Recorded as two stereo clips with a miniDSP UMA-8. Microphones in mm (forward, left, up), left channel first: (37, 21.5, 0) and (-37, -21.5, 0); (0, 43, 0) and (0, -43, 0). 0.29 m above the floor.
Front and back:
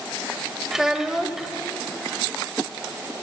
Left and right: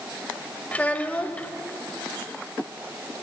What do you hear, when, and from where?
0.7 s a child speaking: 130° left, 0.6 m